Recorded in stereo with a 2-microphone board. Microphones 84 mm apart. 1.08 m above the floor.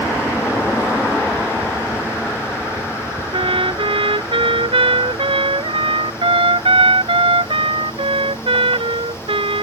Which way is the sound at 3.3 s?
85° right.